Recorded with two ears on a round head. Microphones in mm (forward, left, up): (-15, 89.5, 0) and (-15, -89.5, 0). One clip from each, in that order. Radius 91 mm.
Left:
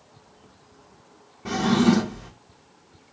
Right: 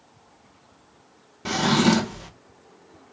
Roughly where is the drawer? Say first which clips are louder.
Right 1 dB; right.